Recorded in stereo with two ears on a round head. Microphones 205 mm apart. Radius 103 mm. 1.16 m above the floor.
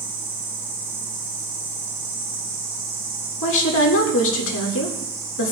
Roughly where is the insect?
Right.